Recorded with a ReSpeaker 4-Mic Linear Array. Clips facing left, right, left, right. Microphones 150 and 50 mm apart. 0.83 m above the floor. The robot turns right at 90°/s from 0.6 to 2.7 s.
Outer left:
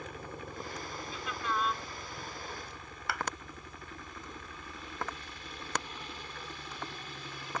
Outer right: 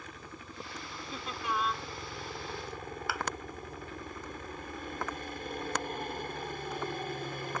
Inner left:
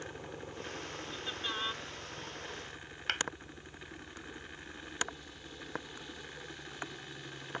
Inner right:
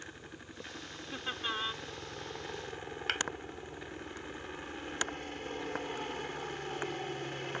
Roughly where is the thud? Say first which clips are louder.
Outer left 1 dB, even; centre.